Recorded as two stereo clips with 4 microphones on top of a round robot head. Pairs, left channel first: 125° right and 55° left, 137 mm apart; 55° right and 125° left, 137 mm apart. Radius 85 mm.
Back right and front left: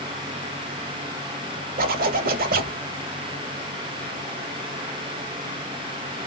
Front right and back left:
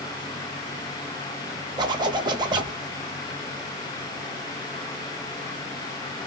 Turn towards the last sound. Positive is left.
turn(degrees=70)